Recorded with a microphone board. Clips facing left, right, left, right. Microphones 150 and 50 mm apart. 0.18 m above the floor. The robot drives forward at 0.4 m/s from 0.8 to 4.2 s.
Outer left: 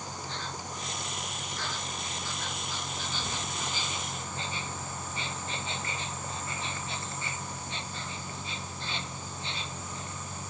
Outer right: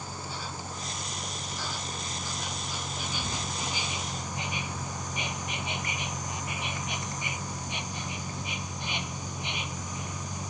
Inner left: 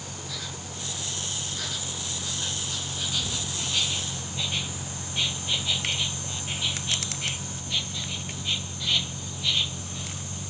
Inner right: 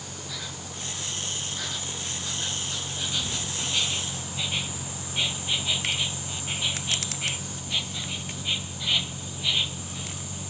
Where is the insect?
10° right (ahead or behind); by 10.5 s 15° right (ahead or behind).